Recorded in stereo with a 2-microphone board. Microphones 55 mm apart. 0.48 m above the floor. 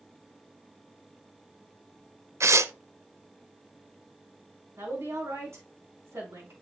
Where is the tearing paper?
60° right (ahead or behind), 0.6 m.